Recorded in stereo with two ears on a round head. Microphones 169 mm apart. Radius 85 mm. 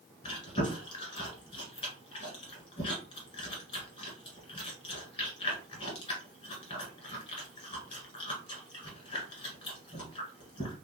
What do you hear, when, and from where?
0.2 s chewing: 25° left (ahead or behind), 1.5 m